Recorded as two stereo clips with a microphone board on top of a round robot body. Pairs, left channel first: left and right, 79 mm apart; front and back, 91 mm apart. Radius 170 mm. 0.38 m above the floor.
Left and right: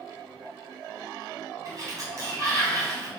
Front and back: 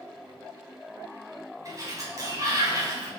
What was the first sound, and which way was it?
A sliding door, 130° right.